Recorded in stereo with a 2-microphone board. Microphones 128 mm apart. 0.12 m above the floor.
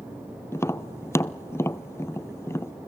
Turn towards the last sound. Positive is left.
turn(degrees=20)  # may be behind; listen again after turning